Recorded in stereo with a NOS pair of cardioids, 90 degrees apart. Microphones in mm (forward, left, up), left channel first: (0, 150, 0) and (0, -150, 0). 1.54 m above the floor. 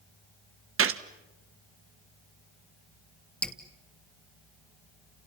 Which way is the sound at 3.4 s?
5° left.